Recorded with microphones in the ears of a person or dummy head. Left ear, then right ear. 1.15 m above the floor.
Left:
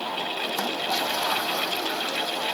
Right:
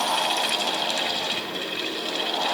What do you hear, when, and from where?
Only background noise.